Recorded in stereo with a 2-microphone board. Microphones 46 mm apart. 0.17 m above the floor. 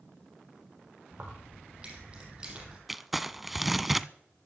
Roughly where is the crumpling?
Centre.